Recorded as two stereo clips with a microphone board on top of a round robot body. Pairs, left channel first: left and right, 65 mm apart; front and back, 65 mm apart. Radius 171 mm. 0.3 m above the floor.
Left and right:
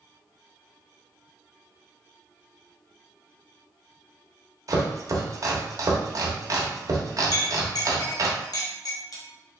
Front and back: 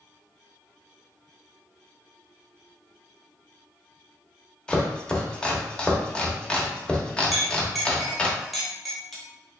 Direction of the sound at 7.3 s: 90° left.